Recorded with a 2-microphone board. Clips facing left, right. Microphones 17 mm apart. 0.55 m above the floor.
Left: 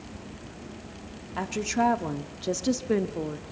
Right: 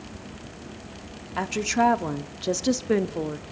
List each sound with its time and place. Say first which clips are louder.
1.4 s a woman speaking: right 3 dB; 20° right (ahead or behind), 0.9 m